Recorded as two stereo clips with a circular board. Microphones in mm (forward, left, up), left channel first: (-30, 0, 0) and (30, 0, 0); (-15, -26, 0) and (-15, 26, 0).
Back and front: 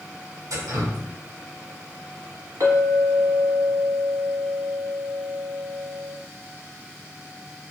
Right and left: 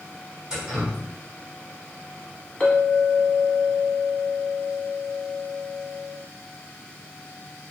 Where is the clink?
15° right, 1.1 m.